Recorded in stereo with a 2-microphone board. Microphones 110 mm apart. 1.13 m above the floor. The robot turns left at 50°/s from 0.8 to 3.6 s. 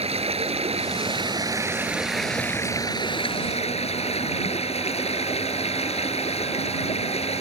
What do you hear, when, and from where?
0.0 s running water: 110° right; by 7.4 s 110° left